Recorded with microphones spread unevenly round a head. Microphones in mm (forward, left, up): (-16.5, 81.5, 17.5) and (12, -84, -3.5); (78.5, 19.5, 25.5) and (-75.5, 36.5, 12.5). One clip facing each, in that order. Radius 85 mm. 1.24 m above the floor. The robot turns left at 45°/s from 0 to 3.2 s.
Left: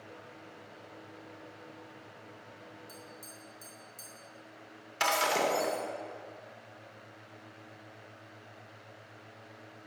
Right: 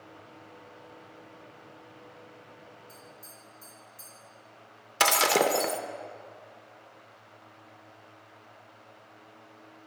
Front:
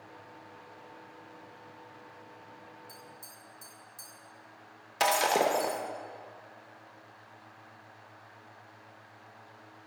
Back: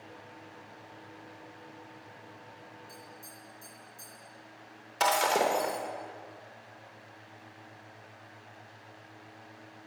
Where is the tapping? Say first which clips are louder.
Left 1 dB, back 2 dB; 50° left, 3.5 m; by 4.1 s 35° left, 3.5 m.